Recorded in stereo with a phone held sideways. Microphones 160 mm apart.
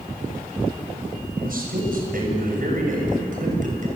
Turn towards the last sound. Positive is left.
turn(degrees=-55)  # may be behind; listen again after turning